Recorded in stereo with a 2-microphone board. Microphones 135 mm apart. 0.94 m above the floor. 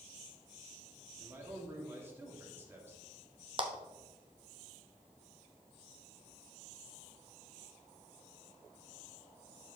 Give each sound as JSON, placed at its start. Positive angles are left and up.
{"t": 1.2, "sound": "a man speaking", "side_deg": -20, "distance_m": 2.0}
{"t": 3.6, "sound": "a clap", "side_deg": -35, "distance_m": 1.1}